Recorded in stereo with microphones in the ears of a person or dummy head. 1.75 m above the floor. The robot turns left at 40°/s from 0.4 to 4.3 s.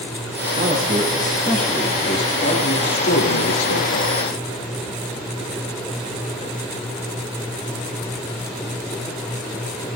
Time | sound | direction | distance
0.5 | a man speaking | 140° right | 3 m